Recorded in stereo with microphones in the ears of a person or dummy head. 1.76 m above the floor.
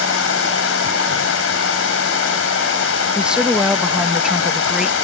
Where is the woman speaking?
5° right (ahead or behind).